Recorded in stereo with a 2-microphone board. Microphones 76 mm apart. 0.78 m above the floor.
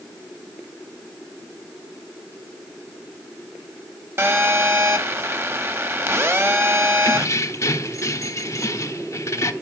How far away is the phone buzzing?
About 1.6 m.